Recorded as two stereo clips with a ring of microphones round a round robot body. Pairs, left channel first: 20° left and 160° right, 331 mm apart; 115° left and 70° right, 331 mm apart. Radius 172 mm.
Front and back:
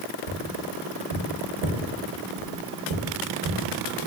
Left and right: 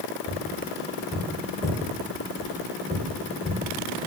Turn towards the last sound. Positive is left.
turn(degrees=-160)